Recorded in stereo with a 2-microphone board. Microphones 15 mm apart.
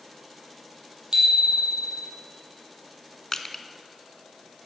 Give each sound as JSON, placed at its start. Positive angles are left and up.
{"t": 1.1, "sound": "a bicycle bell", "side_deg": -60, "distance_m": 4.0}
{"t": 3.3, "sound": "crushing", "side_deg": 40, "distance_m": 0.9}